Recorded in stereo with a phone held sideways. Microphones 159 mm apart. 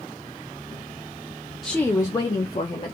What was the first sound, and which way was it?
A woman speaking, centre (ahead or behind).